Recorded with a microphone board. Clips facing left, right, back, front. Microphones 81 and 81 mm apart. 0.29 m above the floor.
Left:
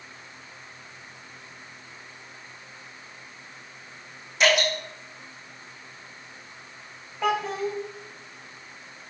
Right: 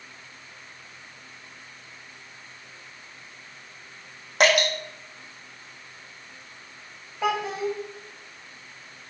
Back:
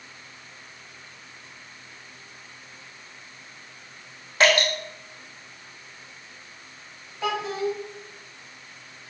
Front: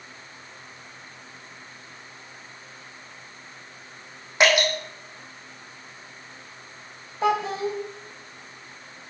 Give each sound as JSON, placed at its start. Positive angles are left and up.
{"t": 4.4, "sound": "dripping", "azimuth_deg": -70, "distance_m": 4.0}
{"t": 7.2, "sound": "a child speaking", "azimuth_deg": -5, "distance_m": 0.8}